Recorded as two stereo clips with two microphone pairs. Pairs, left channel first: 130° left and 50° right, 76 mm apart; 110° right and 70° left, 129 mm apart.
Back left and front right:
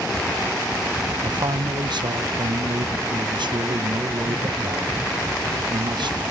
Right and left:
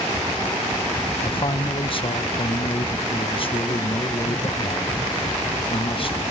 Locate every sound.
1.2 s a man speaking: 65° right